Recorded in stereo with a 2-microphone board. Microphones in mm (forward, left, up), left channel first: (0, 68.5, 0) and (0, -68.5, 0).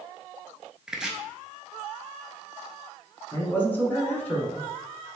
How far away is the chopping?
About 0.6 m.